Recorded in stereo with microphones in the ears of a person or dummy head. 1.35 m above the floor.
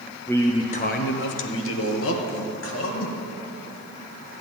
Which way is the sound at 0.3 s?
Centre (ahead or behind).